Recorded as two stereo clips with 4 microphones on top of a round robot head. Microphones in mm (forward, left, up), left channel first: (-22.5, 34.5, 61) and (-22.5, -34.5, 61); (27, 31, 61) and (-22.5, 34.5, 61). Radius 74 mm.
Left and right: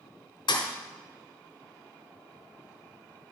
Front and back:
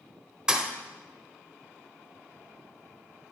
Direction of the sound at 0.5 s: 105° left.